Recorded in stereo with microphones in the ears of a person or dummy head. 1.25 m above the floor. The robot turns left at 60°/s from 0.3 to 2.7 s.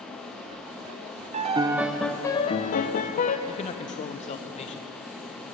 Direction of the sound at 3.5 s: 35° left (ahead or behind).